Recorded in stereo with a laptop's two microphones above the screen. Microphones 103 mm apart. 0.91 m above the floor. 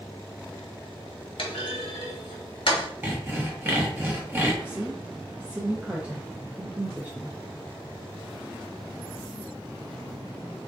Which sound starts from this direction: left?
A clunk, at 1.4 s.